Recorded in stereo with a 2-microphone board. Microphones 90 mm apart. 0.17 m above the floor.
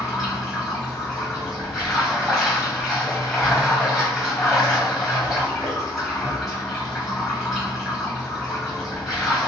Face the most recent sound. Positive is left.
turn(degrees=5)  # may be behind; listen again after turning